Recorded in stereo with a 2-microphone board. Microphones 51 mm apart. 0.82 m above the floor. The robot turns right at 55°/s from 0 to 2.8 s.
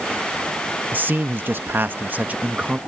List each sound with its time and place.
0.9 s a man speaking: 125° right; by 2.8 s 25° right